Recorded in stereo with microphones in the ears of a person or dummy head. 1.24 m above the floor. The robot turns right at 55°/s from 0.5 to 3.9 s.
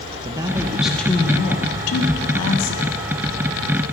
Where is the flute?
I don't hear a flute.